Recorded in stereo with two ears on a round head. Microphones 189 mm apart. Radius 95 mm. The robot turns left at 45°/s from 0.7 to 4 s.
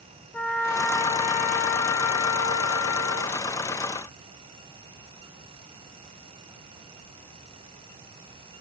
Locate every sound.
0.3 s a trumpet: 170° left, 1.8 m; by 3.4 s 50° left, 1.8 m